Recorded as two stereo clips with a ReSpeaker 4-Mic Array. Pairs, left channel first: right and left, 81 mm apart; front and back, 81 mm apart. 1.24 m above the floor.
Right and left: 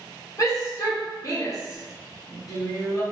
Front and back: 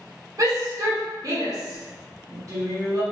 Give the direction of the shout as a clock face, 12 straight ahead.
5 o'clock.